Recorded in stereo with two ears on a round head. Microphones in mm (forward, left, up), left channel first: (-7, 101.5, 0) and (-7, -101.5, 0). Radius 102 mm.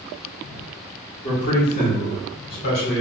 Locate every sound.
1.2 s a man speaking: 15° left (ahead or behind), 1.0 m; by 3.0 s 45° left (ahead or behind), 1.6 m